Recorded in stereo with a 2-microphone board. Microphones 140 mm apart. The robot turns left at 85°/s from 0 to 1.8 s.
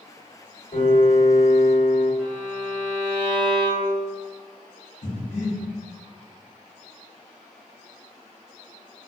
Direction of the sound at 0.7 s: 120° left.